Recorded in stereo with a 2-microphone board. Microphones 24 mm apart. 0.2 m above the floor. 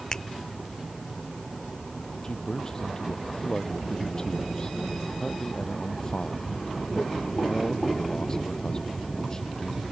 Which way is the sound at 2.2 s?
25° left (ahead or behind).